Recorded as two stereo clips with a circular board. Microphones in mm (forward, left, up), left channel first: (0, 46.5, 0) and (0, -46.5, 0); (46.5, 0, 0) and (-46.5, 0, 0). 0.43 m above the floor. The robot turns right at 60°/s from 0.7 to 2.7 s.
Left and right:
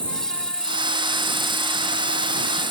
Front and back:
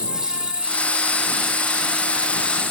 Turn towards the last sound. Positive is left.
turn(degrees=-105)